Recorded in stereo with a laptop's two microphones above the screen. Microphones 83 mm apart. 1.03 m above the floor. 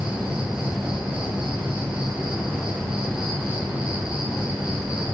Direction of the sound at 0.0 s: 15° right (ahead or behind).